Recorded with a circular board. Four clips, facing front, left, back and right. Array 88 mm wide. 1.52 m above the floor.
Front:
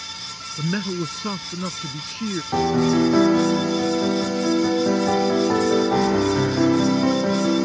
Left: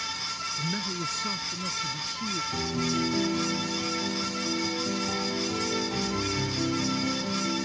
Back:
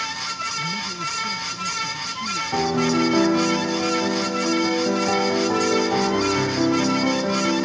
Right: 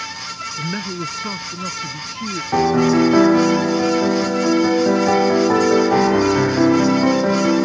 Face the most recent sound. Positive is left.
turn(degrees=-85)